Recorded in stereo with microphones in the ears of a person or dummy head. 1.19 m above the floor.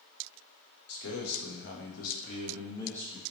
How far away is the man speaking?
About 1.0 m.